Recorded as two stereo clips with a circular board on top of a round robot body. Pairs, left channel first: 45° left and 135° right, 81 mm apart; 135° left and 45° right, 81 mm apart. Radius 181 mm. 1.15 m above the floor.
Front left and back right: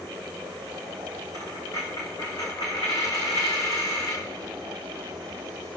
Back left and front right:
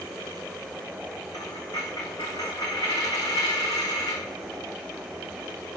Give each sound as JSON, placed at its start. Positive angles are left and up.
{"t": 1.3, "sound": "a dropped coin", "azimuth_deg": 90, "distance_m": 5.0}